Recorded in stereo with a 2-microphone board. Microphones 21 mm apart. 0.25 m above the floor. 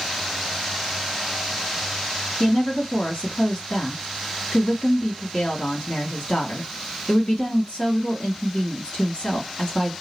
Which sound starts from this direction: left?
A woman speaking, at 2.4 s.